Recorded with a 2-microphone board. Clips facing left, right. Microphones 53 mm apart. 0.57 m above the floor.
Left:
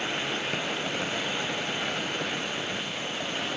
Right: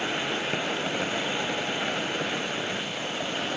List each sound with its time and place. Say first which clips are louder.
0.0 s an insect: right 2 dB; 15° right (ahead or behind)